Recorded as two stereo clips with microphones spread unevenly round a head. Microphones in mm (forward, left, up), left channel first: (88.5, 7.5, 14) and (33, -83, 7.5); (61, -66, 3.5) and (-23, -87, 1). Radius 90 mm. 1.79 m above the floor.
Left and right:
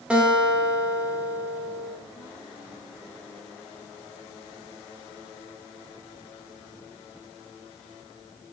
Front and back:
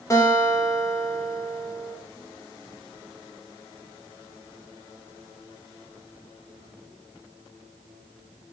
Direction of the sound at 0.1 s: 40° right.